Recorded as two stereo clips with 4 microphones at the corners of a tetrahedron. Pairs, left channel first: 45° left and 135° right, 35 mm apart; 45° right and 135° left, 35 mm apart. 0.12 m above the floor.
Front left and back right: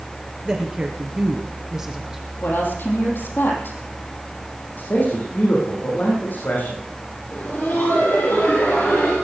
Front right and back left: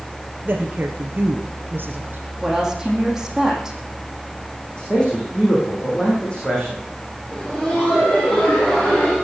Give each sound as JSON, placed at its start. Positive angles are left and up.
{"t": 0.5, "sound": "a woman speaking", "azimuth_deg": 160, "distance_m": 2.0}
{"t": 2.4, "sound": "a woman speaking", "azimuth_deg": 60, "distance_m": 4.5}
{"t": 4.8, "sound": "a man speaking", "azimuth_deg": 20, "distance_m": 6.0}
{"t": 7.3, "sound": "laughter", "azimuth_deg": 30, "distance_m": 3.5}